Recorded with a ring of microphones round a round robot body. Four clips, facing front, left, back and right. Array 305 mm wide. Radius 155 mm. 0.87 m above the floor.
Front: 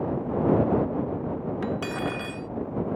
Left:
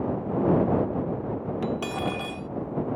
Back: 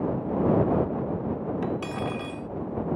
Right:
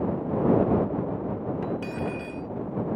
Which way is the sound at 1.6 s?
65° left.